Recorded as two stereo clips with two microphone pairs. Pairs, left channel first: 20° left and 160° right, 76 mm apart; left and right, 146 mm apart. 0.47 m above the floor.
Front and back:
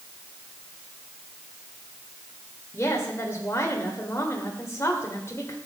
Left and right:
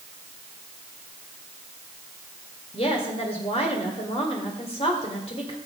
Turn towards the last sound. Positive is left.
turn(degrees=60)